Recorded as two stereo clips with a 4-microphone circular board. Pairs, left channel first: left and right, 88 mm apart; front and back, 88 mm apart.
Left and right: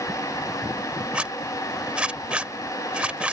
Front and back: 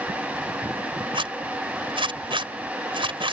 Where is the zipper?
170° right.